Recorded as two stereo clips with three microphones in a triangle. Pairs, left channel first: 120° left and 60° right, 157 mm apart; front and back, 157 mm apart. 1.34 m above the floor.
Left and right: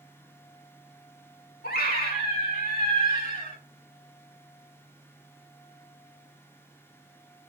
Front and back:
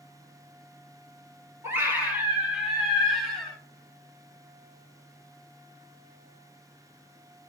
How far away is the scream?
About 2.5 m.